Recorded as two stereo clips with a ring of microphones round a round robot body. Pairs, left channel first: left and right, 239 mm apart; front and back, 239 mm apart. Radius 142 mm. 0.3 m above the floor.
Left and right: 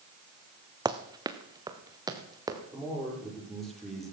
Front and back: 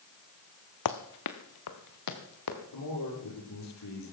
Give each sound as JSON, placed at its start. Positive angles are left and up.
{"t": 0.8, "sound": "running footsteps", "azimuth_deg": -15, "distance_m": 1.3}
{"t": 2.7, "sound": "a man speaking", "azimuth_deg": 0, "distance_m": 9.5}